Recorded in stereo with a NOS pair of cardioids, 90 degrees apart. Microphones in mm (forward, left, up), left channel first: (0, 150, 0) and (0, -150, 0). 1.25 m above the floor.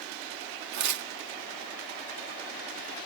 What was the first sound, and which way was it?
Tearing paper, 65° right.